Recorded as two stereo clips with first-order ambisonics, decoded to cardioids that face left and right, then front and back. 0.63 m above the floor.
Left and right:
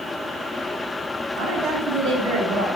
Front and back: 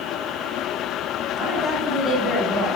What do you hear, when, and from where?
1.4 s a woman speaking: 70° right, 2.5 m